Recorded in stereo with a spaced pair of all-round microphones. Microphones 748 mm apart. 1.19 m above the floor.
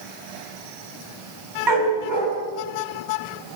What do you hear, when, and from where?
1.7 s a dog barking: 85° right, 5.5 m